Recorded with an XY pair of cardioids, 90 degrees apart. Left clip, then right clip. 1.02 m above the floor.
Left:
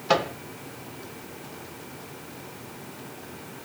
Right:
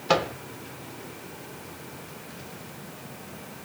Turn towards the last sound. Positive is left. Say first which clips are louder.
# even
turn(degrees=-10)